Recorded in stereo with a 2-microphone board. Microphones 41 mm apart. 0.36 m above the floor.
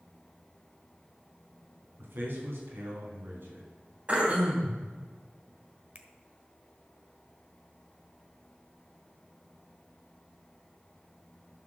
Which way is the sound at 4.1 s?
35° right (ahead or behind).